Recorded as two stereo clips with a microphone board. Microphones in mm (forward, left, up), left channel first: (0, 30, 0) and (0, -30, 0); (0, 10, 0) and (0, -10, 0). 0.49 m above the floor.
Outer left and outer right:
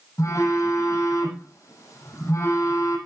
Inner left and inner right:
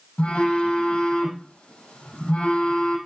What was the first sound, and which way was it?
A phone buzzing, 75° left (ahead or behind).